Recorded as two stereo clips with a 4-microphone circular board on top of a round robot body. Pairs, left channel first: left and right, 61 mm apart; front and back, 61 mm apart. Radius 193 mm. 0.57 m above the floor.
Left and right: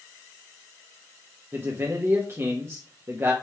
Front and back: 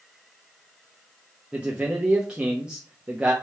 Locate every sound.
1.5 s a man speaking: 115° right, 1.5 m